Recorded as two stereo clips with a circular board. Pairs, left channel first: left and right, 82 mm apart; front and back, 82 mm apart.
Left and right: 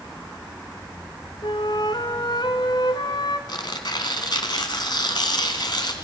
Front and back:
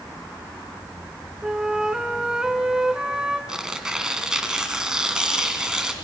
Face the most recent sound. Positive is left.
turn(degrees=100)